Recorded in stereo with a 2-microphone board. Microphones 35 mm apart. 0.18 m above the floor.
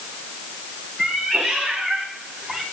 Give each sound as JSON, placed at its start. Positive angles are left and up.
{"t": 1.0, "sound": "a cat meowing", "side_deg": 0, "distance_m": 5.5}